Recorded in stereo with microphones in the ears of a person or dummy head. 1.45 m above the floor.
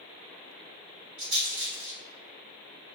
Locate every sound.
1.2 s a rattle: 30° right (ahead or behind), 1.6 m